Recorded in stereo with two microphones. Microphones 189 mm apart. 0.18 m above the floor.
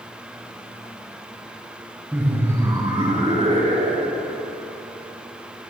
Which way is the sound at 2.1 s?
10° right (ahead or behind).